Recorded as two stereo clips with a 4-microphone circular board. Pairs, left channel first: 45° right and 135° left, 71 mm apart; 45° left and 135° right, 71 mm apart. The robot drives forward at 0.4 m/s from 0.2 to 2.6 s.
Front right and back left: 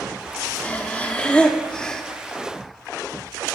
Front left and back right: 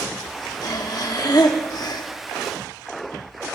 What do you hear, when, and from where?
0.6 s breathing: 25° left, 1.6 m; by 2.0 s 35° left, 1.1 m